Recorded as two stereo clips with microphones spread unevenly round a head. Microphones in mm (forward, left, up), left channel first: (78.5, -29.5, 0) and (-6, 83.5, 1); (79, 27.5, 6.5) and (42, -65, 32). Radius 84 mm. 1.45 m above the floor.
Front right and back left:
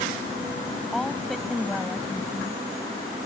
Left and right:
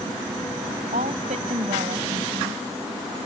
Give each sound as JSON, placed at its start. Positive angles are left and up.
{"t": 0.9, "sound": "a woman speaking", "azimuth_deg": -140}